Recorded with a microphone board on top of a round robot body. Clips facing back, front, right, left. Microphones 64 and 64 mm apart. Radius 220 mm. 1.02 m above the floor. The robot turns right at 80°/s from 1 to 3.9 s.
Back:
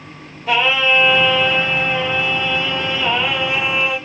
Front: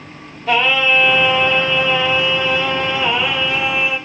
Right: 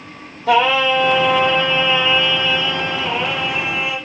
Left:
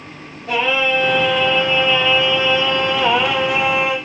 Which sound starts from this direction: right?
Singing, at 0.5 s.